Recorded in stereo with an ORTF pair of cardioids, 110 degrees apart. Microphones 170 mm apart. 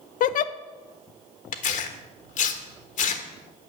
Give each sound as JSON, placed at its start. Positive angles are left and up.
{"t": 0.2, "sound": "a giggle", "azimuth_deg": 55, "distance_m": 0.6}
{"t": 1.5, "sound": "tearing paper", "azimuth_deg": 50, "distance_m": 1.3}